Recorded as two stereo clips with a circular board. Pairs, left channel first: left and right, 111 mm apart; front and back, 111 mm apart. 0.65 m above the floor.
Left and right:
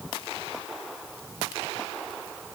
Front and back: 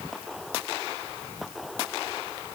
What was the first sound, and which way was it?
Only background noise.